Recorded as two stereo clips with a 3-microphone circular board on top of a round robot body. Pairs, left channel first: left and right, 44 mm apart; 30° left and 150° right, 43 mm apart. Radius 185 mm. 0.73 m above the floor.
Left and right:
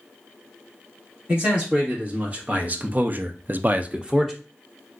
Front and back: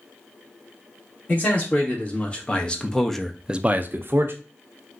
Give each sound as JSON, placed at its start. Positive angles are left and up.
{"t": 1.3, "sound": "a man speaking", "azimuth_deg": -25, "distance_m": 1.7}